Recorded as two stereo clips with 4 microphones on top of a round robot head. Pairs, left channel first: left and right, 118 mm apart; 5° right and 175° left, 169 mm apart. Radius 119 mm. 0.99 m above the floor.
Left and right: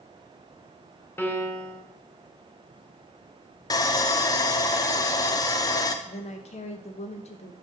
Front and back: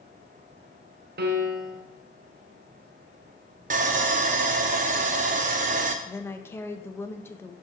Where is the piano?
160° left, 0.9 m.